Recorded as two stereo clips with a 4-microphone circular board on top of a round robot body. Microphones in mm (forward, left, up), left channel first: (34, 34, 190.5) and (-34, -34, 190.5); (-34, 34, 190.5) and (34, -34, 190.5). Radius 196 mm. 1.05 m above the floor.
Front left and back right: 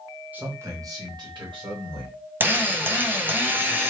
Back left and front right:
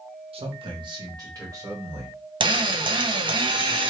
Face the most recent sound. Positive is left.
turn(degrees=-70)